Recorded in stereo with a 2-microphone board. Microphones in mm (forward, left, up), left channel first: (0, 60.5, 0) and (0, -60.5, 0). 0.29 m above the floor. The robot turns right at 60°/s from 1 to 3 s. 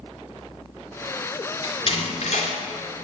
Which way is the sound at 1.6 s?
40° left (ahead or behind).